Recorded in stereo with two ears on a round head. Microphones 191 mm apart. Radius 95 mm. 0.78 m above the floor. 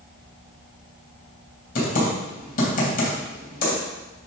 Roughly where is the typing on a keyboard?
Left.